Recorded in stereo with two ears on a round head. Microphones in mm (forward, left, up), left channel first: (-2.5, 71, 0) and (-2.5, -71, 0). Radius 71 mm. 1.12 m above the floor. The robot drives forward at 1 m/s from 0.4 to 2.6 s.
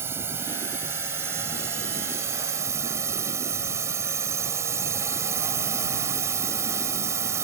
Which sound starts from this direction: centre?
A drone, at 0.0 s.